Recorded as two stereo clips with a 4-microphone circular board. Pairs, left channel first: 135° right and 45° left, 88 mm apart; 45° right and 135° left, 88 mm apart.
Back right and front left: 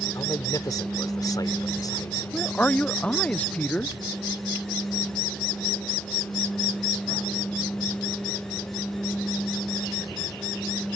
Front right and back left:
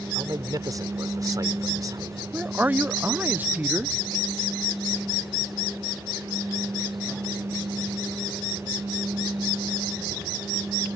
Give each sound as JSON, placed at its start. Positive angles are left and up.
{"t": 0.1, "sound": "a man speaking", "azimuth_deg": 180}
{"t": 2.3, "sound": "a man speaking", "azimuth_deg": 170}